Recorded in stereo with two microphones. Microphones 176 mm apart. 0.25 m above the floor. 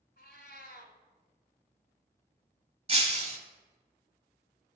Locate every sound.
0.2 s a cat meowing: 65° left (ahead or behind), 1.0 m
2.9 s breaking glass: 35° right (ahead or behind), 0.9 m